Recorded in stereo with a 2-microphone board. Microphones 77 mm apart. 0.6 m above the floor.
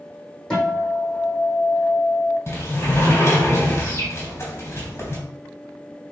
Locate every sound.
0.5 s a guitar: 10° left (ahead or behind), 4 m
2.5 s a sliding door: 35° left (ahead or behind), 3.5 m